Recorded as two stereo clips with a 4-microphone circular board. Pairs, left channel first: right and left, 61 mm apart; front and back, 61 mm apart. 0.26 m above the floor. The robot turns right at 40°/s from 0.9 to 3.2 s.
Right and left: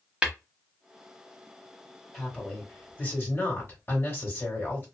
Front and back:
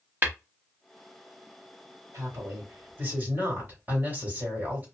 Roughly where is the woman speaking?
Behind.